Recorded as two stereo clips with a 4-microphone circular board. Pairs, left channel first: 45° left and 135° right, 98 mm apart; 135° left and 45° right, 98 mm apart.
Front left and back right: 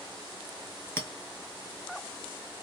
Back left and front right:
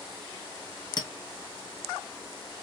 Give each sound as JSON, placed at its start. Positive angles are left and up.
{"t": 1.0, "sound": "a clink", "azimuth_deg": 110, "distance_m": 0.7}